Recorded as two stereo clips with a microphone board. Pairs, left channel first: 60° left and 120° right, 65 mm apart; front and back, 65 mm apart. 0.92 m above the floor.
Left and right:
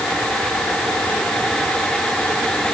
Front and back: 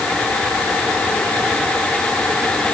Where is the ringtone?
No ringtone in this recording.